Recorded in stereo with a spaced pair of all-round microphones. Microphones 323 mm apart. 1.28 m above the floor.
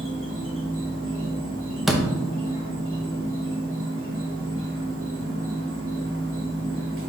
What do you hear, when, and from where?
0.0 s an insect: 40° right (ahead or behind), 0.9 m
1.9 s a door slam: centre (ahead or behind), 0.6 m